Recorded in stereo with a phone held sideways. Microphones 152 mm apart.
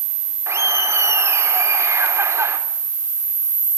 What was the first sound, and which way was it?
Laughter, 20° right (ahead or behind).